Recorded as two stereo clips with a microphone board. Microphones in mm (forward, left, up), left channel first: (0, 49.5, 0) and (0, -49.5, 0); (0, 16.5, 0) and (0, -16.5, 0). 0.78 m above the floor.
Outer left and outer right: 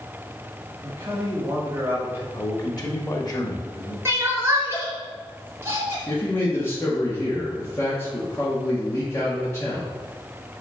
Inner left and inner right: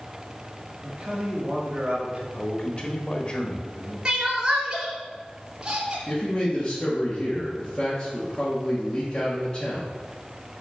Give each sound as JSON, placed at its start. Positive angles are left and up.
{"t": 0.8, "sound": "a man speaking", "side_deg": -25, "distance_m": 1.8}
{"t": 2.3, "sound": "a man speaking", "side_deg": 40, "distance_m": 1.5}
{"t": 4.0, "sound": "crying", "side_deg": -25, "distance_m": 1.8}
{"t": 6.1, "sound": "a man speaking", "side_deg": 25, "distance_m": 1.6}